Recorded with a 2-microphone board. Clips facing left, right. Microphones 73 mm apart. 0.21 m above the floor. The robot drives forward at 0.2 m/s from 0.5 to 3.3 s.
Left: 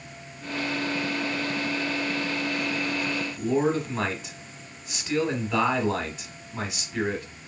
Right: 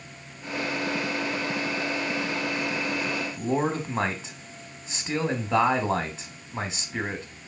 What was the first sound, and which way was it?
A man speaking, 30° right (ahead or behind).